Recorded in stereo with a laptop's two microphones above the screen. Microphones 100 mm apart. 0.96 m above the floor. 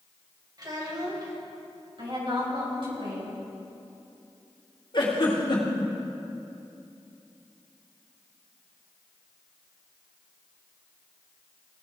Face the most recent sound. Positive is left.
turn(degrees=50)  # may be behind; listen again after turning